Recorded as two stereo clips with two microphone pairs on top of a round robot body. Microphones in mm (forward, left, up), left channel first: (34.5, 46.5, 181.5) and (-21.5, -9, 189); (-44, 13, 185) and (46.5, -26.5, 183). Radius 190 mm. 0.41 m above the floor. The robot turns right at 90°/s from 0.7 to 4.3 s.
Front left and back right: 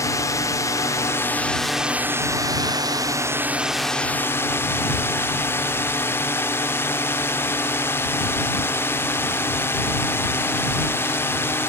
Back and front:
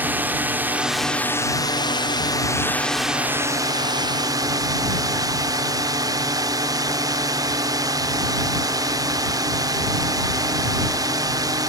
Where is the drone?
40° left; by 11.7 s 5° left.